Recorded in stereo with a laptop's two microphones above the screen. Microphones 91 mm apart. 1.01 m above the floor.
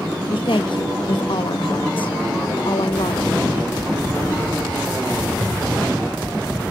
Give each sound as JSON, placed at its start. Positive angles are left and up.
{"t": 0.3, "sound": "a woman speaking", "side_deg": 75, "distance_m": 1.0}